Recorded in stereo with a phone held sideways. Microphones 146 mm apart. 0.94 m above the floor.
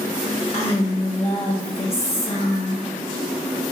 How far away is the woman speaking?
About 0.7 m.